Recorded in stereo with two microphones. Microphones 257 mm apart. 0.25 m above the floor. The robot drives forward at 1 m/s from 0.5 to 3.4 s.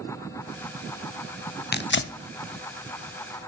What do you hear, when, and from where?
1.7 s tearing paper: 40° left (ahead or behind), 0.6 m